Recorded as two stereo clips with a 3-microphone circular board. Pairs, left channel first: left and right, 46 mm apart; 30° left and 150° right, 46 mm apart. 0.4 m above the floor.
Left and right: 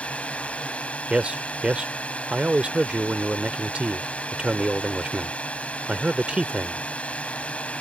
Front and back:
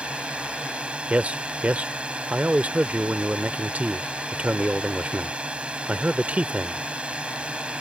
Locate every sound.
0.0 s a drone: 150° left
1.1 s a man speaking: 135° right